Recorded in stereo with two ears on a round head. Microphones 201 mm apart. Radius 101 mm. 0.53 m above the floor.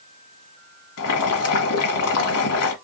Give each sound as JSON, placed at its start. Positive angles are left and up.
{"t": 1.0, "sound": "boiling", "side_deg": 75, "distance_m": 1.9}